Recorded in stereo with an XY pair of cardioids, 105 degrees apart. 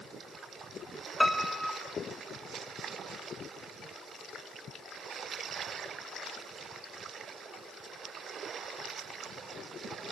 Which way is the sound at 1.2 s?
5° left.